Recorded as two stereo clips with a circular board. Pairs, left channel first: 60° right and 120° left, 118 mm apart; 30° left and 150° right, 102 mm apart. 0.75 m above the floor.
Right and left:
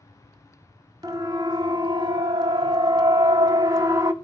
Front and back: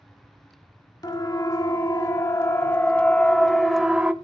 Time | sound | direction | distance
1.0 | a siren | 70° left | 2 m